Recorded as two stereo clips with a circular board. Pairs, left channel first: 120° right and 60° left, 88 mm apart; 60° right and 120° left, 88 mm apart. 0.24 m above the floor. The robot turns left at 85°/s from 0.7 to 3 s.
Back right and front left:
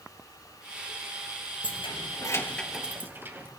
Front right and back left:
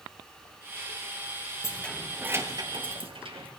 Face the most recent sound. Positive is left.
turn(degrees=125)